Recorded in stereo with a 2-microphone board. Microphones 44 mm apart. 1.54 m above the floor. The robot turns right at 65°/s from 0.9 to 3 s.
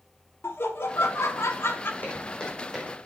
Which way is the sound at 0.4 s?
70° left.